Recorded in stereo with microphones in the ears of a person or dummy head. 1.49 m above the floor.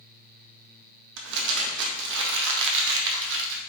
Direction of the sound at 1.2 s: 60° right (ahead or behind).